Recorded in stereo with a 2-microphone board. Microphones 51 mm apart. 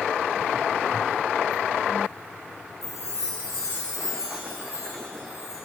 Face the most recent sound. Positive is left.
turn(degrees=85)